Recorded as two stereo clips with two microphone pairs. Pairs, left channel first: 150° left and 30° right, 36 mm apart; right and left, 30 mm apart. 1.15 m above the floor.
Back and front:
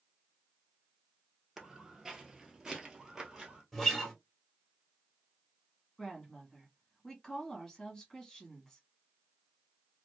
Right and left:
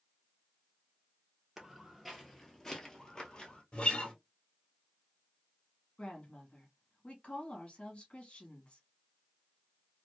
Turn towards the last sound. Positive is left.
turn(degrees=-140)